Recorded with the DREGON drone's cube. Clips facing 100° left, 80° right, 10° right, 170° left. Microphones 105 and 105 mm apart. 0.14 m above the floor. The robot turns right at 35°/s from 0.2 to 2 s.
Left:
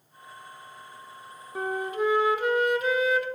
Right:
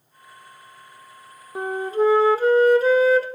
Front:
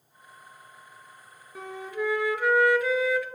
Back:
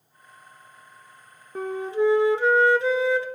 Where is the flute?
145° right, 1.0 m; by 3.3 s 130° right, 1.0 m.